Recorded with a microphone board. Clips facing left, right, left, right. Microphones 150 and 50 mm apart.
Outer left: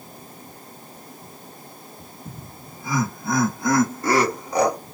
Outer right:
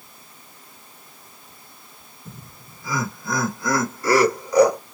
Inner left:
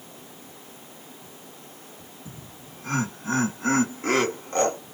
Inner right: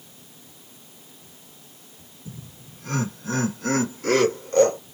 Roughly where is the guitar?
No guitar in this recording.